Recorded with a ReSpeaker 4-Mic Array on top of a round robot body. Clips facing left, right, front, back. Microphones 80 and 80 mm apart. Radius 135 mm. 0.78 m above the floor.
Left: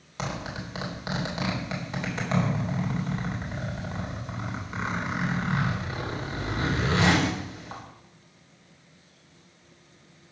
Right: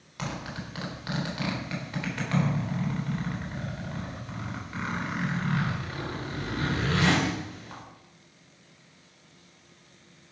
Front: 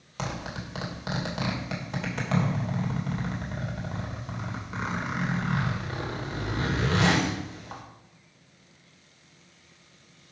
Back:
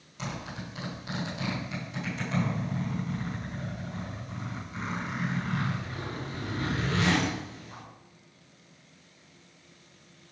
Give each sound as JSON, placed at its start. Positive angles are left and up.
{"t": 0.2, "sound": "a zipper", "azimuth_deg": 25, "distance_m": 3.5}